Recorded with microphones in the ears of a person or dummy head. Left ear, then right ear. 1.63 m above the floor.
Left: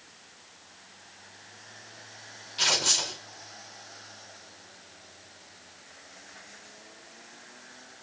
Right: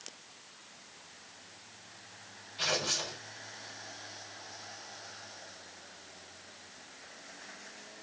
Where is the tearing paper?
70° left (ahead or behind), 2 m.